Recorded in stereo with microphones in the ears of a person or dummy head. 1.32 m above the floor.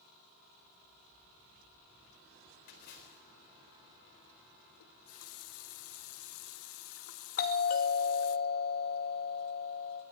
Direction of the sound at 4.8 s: 75° left (ahead or behind).